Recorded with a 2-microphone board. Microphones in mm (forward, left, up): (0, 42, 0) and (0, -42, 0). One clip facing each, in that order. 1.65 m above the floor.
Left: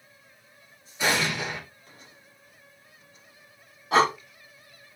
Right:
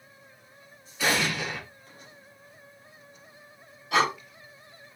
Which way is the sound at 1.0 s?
20° left (ahead or behind).